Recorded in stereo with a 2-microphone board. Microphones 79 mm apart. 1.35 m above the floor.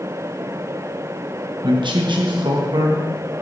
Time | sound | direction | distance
1.6 | a man speaking | 75° right (ahead or behind) | 1.0 m